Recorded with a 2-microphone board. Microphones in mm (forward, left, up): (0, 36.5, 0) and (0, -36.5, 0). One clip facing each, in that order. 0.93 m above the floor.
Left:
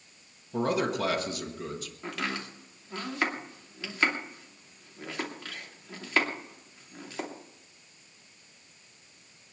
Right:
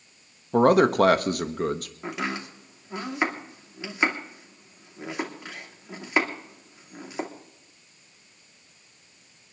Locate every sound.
0.5 s a man speaking: 55° right (ahead or behind), 1.2 m
2.0 s chopping: 15° right (ahead or behind), 2.5 m